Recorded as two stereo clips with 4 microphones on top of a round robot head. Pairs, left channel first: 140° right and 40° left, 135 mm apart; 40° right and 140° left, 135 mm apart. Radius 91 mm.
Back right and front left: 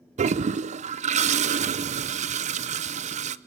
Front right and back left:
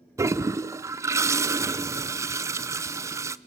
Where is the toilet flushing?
70° left, 0.6 m.